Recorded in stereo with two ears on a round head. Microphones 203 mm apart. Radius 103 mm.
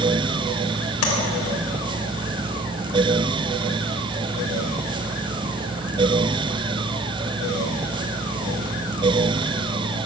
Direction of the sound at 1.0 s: 75° left (ahead or behind).